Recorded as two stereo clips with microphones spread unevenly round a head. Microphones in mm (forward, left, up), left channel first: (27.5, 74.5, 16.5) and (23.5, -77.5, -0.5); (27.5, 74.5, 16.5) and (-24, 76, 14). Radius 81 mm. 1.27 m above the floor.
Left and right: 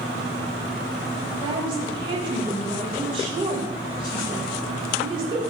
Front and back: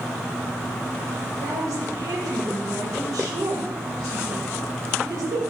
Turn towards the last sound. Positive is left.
turn(degrees=-155)